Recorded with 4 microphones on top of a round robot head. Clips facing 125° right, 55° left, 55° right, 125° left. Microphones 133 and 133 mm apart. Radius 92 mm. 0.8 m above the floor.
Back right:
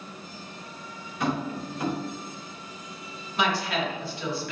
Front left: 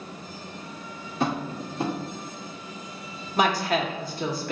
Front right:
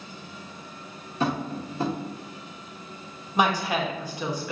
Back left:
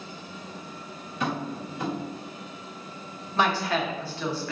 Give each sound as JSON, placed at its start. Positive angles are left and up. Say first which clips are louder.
{"t": 1.2, "sound": "tapping", "louder": "front left 1 dB, front right 3 dB", "azimuth_deg": 0, "distance_m": 1.1}
{"t": 3.4, "sound": "a woman speaking", "louder": "front left 4 dB, front right 1 dB", "azimuth_deg": 20, "distance_m": 1.0}